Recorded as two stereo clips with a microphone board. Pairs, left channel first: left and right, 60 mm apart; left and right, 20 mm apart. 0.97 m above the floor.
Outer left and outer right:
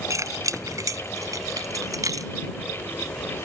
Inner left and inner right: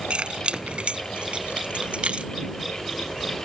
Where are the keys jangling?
65° right (ahead or behind); by 2.3 s 80° right.